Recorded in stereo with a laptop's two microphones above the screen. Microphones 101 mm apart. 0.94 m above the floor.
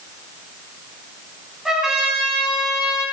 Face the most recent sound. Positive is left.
turn(degrees=-5)  # may be behind; listen again after turning